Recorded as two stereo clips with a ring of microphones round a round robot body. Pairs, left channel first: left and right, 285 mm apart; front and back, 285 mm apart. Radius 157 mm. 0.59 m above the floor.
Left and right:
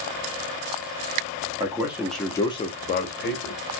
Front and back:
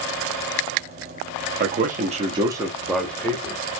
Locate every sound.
1.6 s a man speaking: 155° right, 1.1 m; by 3.6 s 70° left, 1.2 m